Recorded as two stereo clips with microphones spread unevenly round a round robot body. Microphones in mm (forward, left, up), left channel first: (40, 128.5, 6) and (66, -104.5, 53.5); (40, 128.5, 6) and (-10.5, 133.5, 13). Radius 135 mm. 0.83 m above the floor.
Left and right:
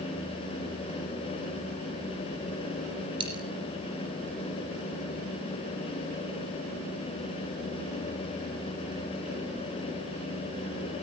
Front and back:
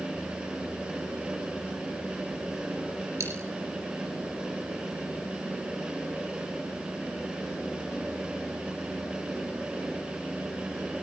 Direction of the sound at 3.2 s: 155° right.